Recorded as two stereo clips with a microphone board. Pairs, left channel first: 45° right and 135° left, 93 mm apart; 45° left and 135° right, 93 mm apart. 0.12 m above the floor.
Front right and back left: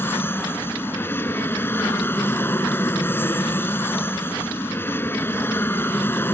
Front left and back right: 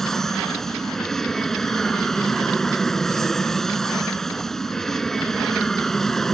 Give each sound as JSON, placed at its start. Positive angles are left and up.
{"t": 0.0, "sound": "an aircraft", "azimuth_deg": -35}